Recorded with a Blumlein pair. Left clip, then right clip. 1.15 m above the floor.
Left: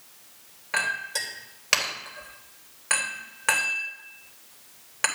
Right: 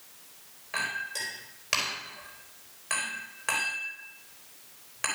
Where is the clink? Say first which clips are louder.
Left 5 dB; 20° left, 3.5 m.